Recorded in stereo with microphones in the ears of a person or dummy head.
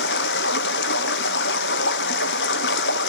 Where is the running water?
65° left (ahead or behind), 0.7 m.